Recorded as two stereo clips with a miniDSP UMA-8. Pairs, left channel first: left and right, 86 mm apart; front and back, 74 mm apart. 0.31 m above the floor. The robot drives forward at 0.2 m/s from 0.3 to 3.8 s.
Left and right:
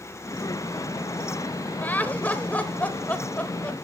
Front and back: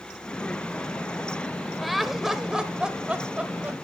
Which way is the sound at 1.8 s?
95° left.